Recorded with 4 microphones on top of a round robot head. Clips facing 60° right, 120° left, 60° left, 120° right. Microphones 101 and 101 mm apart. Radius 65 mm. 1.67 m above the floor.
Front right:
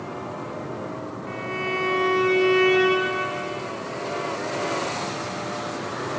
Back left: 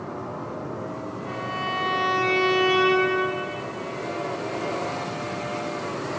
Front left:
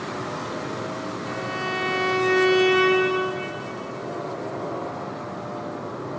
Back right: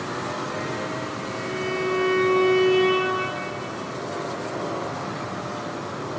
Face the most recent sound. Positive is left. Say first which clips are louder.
# front right 1 dB, back right 1 dB
turn(degrees=55)